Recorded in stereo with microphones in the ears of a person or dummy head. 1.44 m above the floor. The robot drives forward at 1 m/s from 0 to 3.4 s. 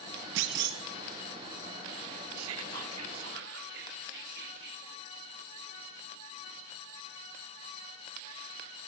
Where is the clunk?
60° right (ahead or behind), 1.1 m; by 0.8 s 50° right (ahead or behind), 1.3 m.